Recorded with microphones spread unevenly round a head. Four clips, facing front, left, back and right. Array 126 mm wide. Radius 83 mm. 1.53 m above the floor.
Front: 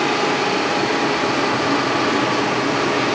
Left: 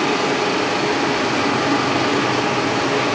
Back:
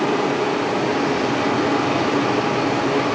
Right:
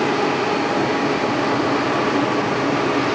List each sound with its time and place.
Only background noise.